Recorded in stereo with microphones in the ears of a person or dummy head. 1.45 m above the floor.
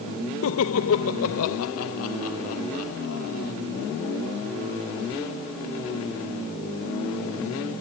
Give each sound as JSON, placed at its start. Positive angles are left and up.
{"t": 0.4, "sound": "laughter", "side_deg": 75}